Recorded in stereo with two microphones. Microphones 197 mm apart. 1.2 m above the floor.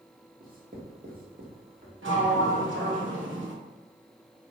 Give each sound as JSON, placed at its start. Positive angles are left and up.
{"t": 0.4, "sound": "writing", "side_deg": -45, "distance_m": 1.0}
{"t": 2.0, "sound": "a sliding door", "side_deg": -80, "distance_m": 0.9}